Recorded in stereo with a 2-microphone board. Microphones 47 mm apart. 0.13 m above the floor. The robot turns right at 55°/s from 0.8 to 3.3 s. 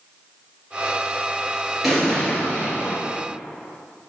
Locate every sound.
1.8 s an explosion: 5° right, 2.5 m; by 3.0 s 55° left, 2.5 m